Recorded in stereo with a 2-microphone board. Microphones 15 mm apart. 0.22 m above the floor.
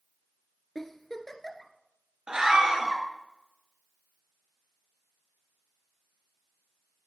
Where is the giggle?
35° left (ahead or behind), 1.2 m.